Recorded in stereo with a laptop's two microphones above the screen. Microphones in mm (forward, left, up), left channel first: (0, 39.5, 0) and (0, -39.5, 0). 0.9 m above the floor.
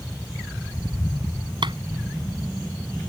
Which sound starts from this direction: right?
A clap, at 1.6 s.